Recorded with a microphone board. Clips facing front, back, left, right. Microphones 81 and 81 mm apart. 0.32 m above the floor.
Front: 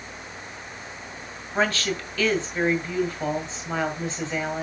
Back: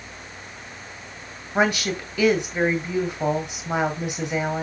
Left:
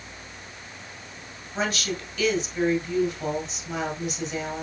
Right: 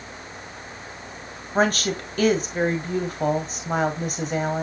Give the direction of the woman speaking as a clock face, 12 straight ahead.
4 o'clock.